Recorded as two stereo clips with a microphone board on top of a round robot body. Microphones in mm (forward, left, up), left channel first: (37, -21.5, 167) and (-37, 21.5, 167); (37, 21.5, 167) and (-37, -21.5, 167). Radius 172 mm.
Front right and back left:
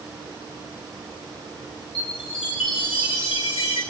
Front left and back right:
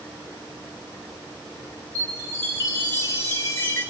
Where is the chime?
30° right, 8.5 m.